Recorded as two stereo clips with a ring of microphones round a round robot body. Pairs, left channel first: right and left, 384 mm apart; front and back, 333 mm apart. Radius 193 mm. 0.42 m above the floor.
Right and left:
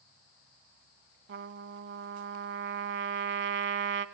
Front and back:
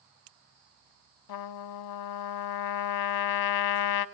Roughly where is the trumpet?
Ahead left.